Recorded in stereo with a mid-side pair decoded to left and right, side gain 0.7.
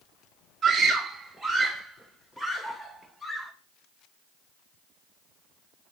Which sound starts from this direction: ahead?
A scream, at 0.6 s.